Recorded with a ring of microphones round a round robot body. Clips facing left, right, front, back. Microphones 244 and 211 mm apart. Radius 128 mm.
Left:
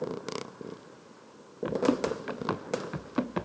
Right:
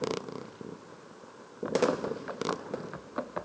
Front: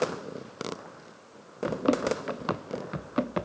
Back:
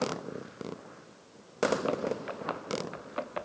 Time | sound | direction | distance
1.6 | running footsteps | 40° left | ?